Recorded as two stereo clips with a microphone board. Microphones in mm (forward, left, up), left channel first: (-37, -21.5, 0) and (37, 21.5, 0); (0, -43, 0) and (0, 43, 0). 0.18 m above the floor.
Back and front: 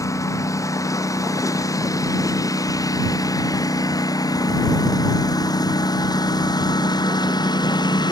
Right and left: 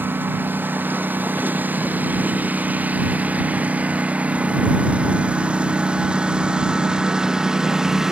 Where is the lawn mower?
155° left; by 8.1 s 175° left.